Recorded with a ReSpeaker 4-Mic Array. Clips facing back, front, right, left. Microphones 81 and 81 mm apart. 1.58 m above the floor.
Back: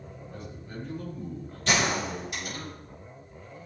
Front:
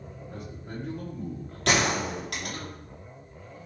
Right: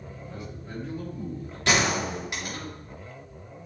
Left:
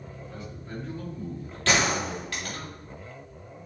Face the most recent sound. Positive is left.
turn(degrees=-20)